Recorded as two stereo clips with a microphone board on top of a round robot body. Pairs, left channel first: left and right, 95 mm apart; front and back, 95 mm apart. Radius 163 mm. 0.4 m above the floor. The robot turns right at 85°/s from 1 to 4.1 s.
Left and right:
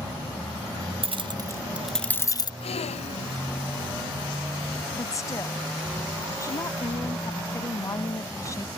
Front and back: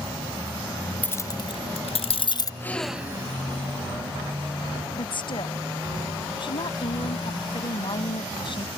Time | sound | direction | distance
1.0 | keys jangling | 75° right | ?
2.6 | a gasp | 65° left | ?
5.0 | a woman speaking | 35° left | ?